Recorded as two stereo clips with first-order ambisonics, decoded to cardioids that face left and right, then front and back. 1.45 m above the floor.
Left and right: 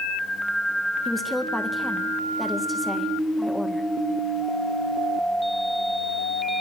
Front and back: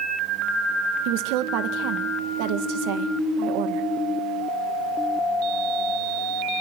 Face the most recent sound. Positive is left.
turn(degrees=175)